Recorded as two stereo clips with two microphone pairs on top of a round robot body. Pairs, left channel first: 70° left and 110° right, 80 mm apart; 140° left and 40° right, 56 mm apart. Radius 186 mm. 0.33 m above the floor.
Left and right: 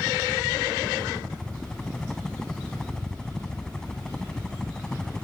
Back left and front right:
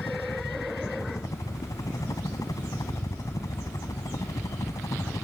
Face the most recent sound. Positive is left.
turn(degrees=155)